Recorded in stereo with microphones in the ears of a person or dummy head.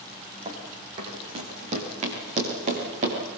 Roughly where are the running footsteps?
Right.